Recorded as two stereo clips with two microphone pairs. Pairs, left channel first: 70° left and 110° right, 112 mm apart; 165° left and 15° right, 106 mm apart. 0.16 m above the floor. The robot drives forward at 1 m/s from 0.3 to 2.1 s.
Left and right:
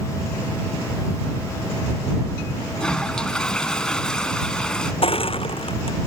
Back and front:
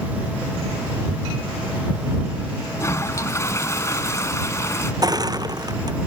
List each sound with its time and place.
2.8 s a toilet flushing: 145° left
5.0 s crushing: 40° left